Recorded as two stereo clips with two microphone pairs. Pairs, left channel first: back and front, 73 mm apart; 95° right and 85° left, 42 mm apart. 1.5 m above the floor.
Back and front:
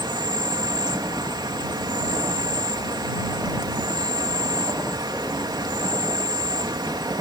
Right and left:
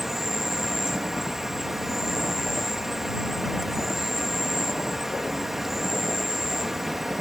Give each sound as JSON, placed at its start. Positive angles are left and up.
{"t": 0.0, "sound": "an insect", "azimuth_deg": 0}